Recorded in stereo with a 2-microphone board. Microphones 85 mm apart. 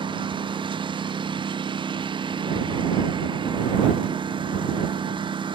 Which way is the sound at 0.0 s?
70° right (ahead or behind).